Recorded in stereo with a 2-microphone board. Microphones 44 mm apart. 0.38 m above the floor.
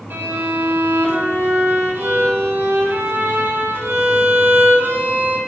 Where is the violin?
65° right (ahead or behind), 1.4 m.